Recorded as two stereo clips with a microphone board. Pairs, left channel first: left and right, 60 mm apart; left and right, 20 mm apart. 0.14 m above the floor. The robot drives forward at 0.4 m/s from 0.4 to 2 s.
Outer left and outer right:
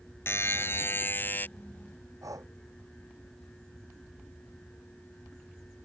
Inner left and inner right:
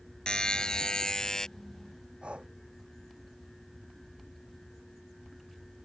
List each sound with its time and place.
0.3 s a buzzer: 45° left (ahead or behind); by 1.5 s 35° left (ahead or behind)
2.2 s breathing: 65° right (ahead or behind)